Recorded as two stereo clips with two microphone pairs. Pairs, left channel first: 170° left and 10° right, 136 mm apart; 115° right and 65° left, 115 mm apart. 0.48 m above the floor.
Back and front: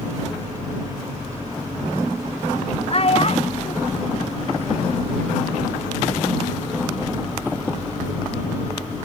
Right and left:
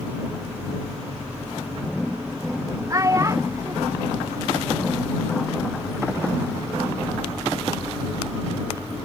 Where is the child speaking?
130° left; by 5.2 s 135° left.